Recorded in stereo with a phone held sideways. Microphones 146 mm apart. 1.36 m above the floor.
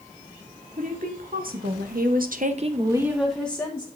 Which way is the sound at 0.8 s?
65° right (ahead or behind).